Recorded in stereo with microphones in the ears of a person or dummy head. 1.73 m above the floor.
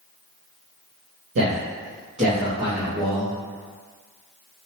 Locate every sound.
1.4 s a man speaking: 65° right (ahead or behind), 0.8 m; by 3.3 s 10° right (ahead or behind), 1.5 m